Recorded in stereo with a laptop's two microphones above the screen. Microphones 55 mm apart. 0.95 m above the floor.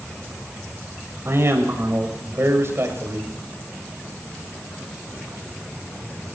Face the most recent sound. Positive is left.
turn(degrees=-50)  # may be behind; listen again after turning